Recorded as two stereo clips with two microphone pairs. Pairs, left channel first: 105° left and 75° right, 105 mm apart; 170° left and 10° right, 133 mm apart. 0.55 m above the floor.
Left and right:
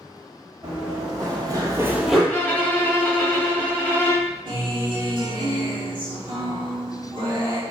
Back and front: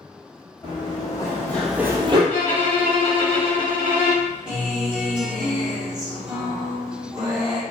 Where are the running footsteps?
135° right, 1.7 m; by 2.2 s 15° left, 0.7 m.